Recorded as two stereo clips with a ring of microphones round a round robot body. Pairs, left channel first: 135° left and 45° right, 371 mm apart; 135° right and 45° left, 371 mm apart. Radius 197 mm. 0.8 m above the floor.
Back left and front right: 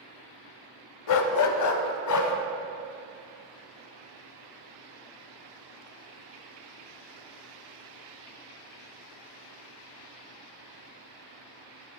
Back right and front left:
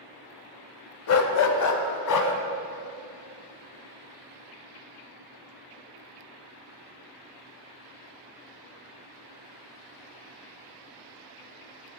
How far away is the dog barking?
About 1.0 m.